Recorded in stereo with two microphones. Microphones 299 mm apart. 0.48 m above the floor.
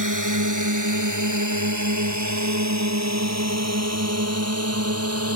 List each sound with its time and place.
0.0 s a drone: 75° right (ahead or behind); by 5.4 s 50° right (ahead or behind)